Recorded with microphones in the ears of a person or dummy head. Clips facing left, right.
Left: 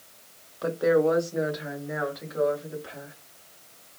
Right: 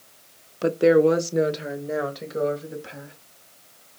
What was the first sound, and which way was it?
A woman speaking, 35° right (ahead or behind).